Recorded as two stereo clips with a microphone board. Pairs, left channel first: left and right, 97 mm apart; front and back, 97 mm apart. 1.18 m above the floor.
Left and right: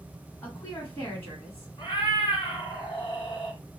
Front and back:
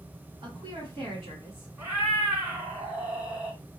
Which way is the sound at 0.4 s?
155° left.